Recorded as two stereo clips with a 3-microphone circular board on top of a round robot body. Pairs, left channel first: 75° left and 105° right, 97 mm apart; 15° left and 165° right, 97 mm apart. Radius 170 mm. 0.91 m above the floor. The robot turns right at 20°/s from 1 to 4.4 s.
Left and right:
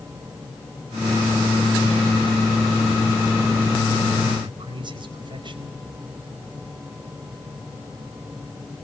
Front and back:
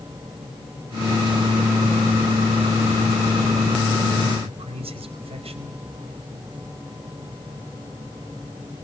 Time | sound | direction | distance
4.4 | a man speaking | 145° right | 5 m